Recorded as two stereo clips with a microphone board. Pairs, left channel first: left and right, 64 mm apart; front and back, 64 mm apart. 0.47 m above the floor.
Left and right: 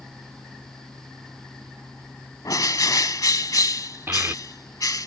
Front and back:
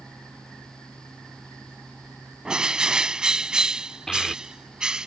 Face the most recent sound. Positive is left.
turn(degrees=-80)